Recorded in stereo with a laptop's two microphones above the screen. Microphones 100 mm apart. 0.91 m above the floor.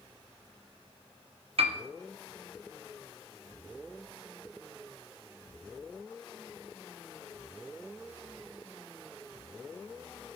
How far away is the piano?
About 0.6 m.